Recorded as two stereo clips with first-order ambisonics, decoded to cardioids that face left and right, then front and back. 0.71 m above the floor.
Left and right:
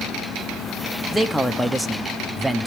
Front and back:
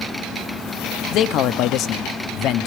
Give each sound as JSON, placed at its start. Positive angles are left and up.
{"t": 1.1, "sound": "a man speaking", "azimuth_deg": 0, "distance_m": 0.7}